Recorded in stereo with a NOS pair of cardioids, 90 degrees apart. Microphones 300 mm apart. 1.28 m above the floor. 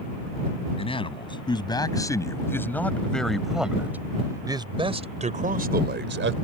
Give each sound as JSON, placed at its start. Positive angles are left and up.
{"t": 0.8, "sound": "a man speaking", "azimuth_deg": 15}